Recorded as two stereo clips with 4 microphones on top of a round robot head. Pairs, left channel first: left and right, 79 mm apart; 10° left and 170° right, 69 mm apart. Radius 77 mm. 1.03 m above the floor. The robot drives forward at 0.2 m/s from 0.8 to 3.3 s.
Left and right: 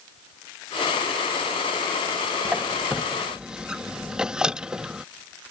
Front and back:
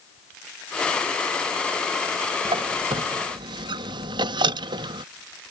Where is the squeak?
170° right.